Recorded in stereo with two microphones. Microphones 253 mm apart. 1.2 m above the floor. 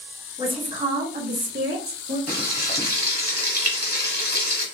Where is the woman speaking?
15° right (ahead or behind), 1.2 m; by 2.2 s 60° right (ahead or behind), 1.7 m.